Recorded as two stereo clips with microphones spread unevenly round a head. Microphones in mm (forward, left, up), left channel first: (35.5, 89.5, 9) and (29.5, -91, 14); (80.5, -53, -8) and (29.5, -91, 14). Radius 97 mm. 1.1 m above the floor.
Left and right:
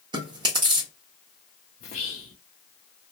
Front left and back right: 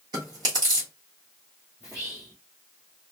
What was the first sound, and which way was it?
Chewing, 160° right.